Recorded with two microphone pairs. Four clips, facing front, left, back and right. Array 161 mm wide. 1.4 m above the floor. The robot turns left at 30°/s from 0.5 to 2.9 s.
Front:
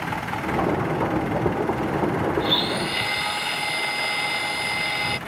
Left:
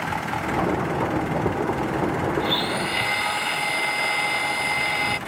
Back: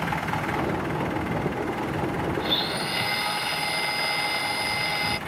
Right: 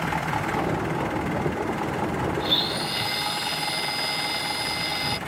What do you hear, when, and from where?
2.4 s a blender: 115° left; by 5.2 s 100° left